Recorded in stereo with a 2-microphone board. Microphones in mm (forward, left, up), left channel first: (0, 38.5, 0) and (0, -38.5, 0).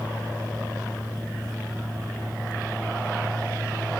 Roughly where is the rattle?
No rattle in this recording.